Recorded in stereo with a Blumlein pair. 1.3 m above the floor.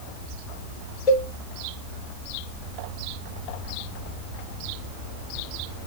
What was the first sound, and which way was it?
A cowbell, 40° left.